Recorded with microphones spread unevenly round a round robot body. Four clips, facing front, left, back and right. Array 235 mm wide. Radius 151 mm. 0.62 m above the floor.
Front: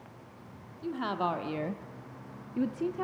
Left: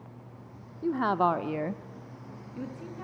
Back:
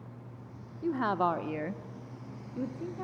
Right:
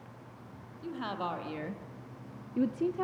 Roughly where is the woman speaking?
Left.